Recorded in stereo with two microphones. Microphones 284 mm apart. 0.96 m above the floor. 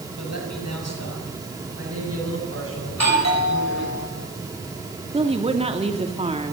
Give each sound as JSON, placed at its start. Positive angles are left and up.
{"t": 0.2, "sound": "a man speaking", "side_deg": -80, "distance_m": 6.5}
{"t": 2.9, "sound": "a doorbell", "side_deg": 70, "distance_m": 5.0}
{"t": 5.1, "sound": "a woman speaking", "side_deg": -20, "distance_m": 2.5}